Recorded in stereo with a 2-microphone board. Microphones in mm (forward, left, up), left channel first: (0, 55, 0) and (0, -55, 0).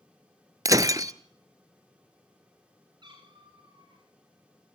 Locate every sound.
0.7 s breaking glass: 35° right (ahead or behind), 0.7 m
3.0 s a cat meowing: 45° right (ahead or behind), 9 m